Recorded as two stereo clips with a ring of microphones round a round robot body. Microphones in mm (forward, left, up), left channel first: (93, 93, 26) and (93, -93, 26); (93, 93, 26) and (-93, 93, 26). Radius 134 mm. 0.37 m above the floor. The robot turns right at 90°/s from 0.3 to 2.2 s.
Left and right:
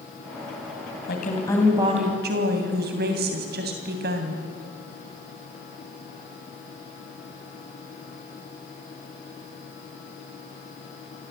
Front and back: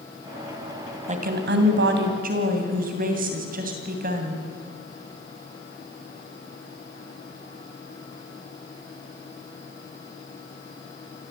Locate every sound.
1.1 s a woman speaking: 130° left, 2.5 m; by 4.4 s 130° right, 2.5 m